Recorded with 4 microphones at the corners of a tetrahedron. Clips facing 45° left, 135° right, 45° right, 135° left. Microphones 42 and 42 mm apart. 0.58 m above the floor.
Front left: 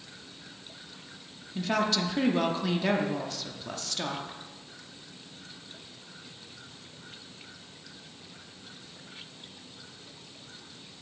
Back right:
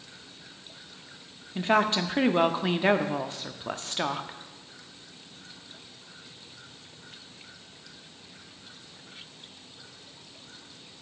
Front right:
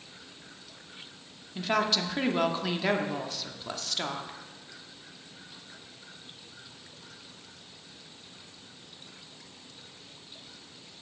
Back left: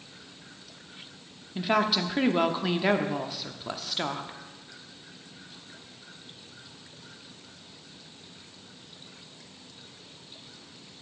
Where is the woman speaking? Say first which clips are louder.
Back right 4 dB, back left 2 dB; 155° right, 0.7 m.